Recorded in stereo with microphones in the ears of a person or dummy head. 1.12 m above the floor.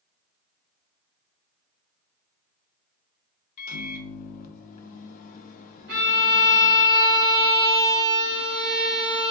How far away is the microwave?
About 0.5 m.